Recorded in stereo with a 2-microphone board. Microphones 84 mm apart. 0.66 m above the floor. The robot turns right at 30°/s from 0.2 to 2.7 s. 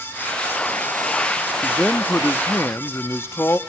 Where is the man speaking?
20° left, 0.7 m; by 3.6 s 55° left, 0.7 m.